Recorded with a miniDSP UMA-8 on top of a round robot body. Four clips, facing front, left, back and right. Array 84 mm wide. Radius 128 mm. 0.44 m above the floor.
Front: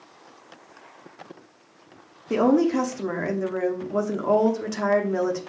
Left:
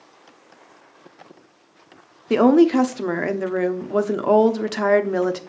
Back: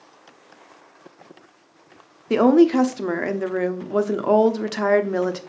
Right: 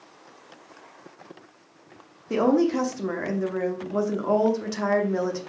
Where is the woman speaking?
130° left, 1.1 m.